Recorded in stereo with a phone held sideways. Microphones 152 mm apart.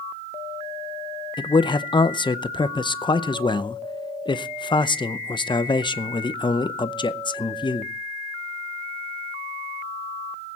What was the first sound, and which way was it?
A man speaking, 30° left (ahead or behind).